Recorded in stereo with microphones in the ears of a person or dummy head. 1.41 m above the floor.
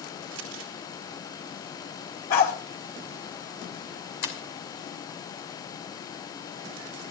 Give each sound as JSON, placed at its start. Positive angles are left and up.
{"t": 0.3, "sound": "crumpling", "side_deg": -70, "distance_m": 1.8}
{"t": 2.3, "sound": "a dog barking", "side_deg": 50, "distance_m": 4.0}
{"t": 4.2, "sound": "breaking glass", "side_deg": 75, "distance_m": 2.5}